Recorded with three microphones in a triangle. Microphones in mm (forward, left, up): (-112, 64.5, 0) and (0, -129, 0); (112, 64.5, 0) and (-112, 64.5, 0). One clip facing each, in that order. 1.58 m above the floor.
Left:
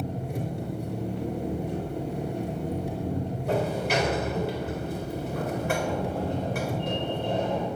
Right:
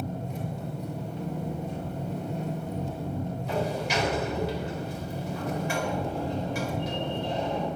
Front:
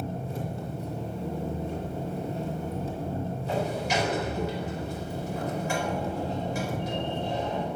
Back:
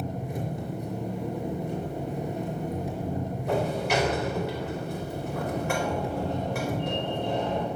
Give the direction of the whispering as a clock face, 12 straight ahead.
I don't hear whispering.